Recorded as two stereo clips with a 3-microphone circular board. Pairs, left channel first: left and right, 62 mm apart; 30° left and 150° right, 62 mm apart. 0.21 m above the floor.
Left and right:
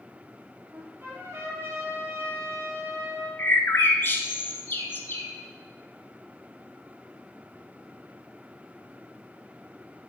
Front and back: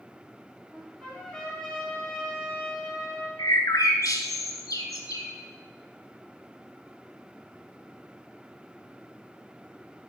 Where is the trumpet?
50° right, 3.5 m.